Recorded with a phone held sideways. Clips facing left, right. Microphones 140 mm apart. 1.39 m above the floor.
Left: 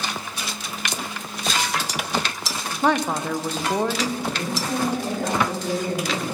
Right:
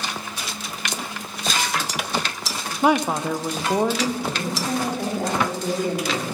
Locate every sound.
2.8 s a woman speaking: 10° right (ahead or behind), 0.5 m
4.2 s a woman speaking: 25° right (ahead or behind), 3 m